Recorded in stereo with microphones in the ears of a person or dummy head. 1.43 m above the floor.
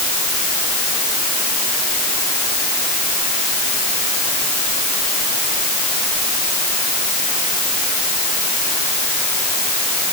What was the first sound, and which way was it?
Only background noise.